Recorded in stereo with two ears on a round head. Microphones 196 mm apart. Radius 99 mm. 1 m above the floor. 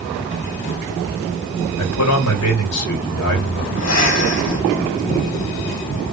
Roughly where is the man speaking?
Left.